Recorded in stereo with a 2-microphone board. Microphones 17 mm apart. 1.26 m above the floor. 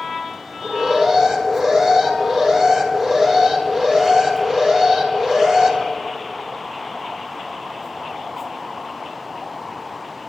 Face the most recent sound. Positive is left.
turn(degrees=-50)  # may be behind; listen again after turning